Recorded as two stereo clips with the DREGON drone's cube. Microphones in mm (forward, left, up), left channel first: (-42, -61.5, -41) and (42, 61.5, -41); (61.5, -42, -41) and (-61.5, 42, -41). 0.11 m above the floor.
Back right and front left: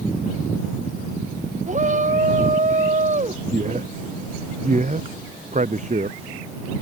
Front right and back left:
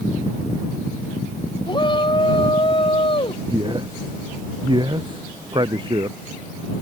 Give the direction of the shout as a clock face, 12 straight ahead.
11 o'clock.